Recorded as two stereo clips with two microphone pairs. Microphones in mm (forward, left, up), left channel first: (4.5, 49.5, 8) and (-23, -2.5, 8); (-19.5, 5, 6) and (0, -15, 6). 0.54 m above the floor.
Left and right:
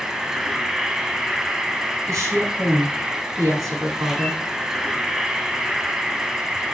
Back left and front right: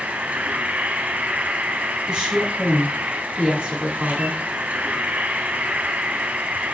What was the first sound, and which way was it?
An insect, 35° right.